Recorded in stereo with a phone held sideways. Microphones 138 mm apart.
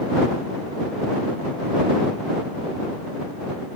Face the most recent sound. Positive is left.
No sound to turn to.